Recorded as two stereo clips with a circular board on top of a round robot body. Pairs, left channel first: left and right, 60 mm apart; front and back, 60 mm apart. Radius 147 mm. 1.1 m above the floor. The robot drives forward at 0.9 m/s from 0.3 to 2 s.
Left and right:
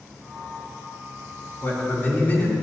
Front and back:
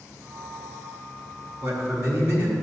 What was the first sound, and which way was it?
A man speaking, 140° left.